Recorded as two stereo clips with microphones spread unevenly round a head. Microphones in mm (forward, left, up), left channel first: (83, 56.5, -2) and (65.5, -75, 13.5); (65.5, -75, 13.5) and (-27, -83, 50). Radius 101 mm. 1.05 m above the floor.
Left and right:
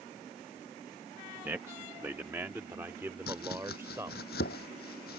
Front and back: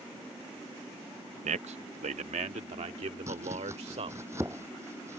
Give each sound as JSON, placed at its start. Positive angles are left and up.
{"t": 1.4, "sound": "a man speaking", "azimuth_deg": 180}
{"t": 3.3, "sound": "chopping", "azimuth_deg": 110}